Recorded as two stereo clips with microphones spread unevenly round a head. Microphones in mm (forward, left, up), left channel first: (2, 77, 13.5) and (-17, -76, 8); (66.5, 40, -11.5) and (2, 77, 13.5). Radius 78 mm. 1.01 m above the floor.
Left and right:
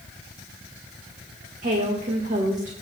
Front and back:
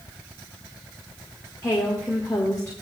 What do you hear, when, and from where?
1.6 s a woman speaking: 65° right, 1.3 m